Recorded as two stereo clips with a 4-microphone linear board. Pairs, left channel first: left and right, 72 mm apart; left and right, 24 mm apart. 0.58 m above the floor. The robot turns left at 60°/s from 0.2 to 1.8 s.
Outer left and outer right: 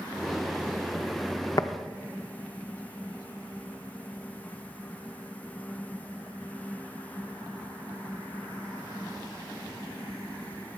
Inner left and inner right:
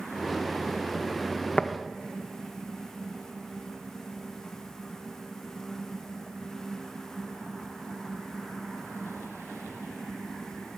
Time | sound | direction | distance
1.6 | tapping | 55° left (ahead or behind) | 0.5 m